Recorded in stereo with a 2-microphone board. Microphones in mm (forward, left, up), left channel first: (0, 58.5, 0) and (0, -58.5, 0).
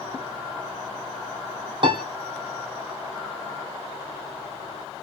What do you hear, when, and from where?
1.8 s a piano: 45° right (ahead or behind), 1.2 m